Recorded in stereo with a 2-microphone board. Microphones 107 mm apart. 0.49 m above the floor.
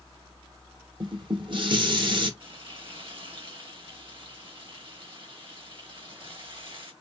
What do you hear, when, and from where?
1.0 s dishes clattering: 50° right (ahead or behind), 1.0 m
2.4 s frying: 55° right (ahead or behind), 2 m